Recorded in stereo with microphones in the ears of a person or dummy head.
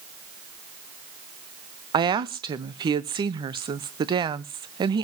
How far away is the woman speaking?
About 0.8 m.